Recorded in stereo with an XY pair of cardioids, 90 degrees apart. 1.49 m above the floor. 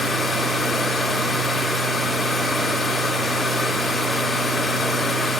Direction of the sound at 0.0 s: 35° left.